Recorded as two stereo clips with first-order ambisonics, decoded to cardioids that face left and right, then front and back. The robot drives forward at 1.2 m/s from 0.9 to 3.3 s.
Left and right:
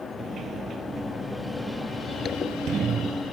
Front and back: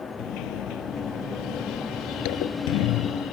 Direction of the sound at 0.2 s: 25° right.